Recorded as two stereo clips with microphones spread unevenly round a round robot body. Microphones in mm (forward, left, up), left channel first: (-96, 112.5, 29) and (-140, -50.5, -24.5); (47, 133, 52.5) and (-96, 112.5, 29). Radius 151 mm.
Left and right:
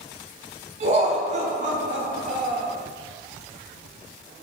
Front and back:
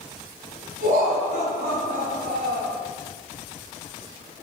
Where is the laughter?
145° right, 4 m; by 2.7 s 130° right, 4 m.